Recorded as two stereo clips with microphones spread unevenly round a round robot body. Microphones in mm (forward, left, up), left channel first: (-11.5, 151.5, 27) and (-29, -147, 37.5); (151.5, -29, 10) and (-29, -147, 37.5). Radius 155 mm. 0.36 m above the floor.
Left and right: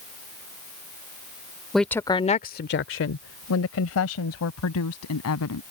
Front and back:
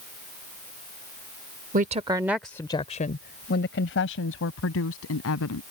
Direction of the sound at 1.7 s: 175° left.